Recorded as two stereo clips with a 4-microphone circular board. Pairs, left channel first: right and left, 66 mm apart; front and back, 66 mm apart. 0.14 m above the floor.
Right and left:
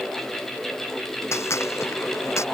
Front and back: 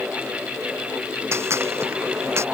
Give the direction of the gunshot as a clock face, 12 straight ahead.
4 o'clock.